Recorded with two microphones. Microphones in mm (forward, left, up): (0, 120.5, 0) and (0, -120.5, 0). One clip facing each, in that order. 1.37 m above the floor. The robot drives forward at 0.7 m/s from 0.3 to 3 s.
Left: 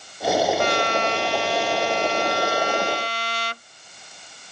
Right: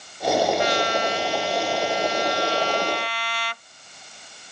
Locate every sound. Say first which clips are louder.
0.6 s a trumpet: even; 55° left (ahead or behind); by 3.6 s 45° left (ahead or behind)